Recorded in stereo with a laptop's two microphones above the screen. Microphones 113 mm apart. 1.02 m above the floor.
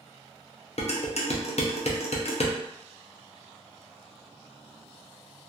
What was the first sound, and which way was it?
Dishes clattering, 65° left (ahead or behind).